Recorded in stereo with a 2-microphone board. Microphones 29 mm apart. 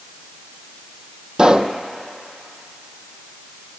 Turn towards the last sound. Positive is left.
turn(degrees=-35)  # may be behind; listen again after turning